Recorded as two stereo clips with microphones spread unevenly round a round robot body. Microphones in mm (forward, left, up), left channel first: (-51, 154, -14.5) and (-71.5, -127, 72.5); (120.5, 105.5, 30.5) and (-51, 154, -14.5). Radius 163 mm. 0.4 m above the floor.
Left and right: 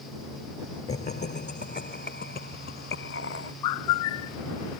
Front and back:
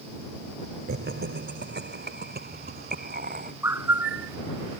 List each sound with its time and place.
0.9 s laughter: 145° left; by 3.5 s 130° left
3.6 s a bird: 85° left